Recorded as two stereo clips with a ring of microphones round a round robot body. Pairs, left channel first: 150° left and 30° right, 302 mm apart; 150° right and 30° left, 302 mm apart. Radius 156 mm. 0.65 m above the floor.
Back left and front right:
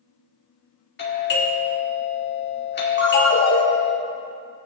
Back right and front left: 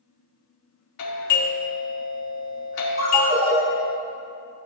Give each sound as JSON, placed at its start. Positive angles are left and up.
{"t": 1.0, "sound": "a doorbell", "azimuth_deg": -160, "distance_m": 2.0}
{"t": 3.0, "sound": "a ringtone", "azimuth_deg": 100, "distance_m": 1.7}